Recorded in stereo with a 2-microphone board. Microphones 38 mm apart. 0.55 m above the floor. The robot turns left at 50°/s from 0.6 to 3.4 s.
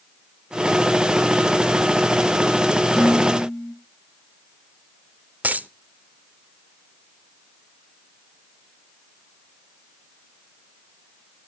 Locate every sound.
3.0 s dishes clattering: 5° right (ahead or behind), 6.5 m; by 3.8 s 15° left (ahead or behind), 6.5 m
5.4 s a dropped coin: 45° right (ahead or behind), 0.5 m